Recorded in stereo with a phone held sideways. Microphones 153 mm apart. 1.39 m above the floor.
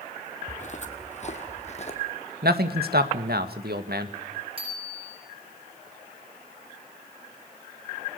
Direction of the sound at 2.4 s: 75° right (ahead or behind).